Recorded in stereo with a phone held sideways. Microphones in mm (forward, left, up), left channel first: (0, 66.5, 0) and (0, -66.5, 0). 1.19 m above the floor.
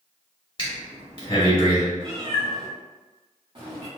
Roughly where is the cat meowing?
Right.